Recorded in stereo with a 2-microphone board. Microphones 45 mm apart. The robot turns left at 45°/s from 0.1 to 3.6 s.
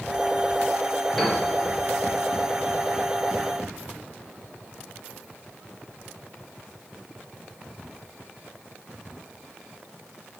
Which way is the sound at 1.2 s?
5° left (ahead or behind).